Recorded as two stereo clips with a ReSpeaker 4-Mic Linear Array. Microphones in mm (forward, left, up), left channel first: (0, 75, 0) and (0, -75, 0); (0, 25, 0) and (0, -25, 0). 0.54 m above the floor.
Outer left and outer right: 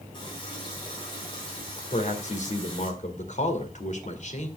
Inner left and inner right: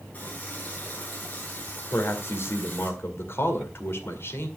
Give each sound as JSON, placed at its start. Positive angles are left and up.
{"t": 0.1, "sound": "a running tap", "side_deg": 30, "distance_m": 3.5}
{"t": 1.9, "sound": "a man speaking", "side_deg": 55, "distance_m": 1.9}